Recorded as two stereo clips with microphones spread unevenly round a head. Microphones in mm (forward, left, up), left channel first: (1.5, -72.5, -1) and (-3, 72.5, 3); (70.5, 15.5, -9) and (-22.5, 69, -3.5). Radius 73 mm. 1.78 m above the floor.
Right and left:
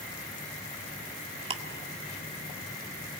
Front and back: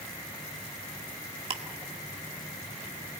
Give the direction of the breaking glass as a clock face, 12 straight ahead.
I don't hear breaking glass.